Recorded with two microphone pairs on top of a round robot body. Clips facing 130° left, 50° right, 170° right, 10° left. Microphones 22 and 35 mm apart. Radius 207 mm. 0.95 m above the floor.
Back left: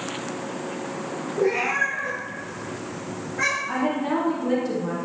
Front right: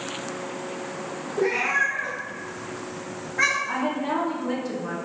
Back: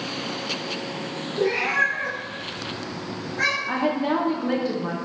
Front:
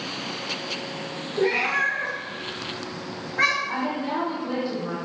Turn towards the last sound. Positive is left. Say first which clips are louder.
# back left 2 dB, back 4 dB
turn(degrees=-150)